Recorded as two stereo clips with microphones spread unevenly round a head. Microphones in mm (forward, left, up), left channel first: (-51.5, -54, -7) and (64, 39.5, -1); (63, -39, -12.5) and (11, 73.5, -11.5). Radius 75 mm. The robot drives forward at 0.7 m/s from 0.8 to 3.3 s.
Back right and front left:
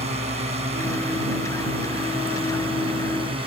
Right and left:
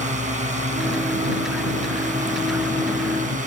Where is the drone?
90° left; by 3.5 s 95° left.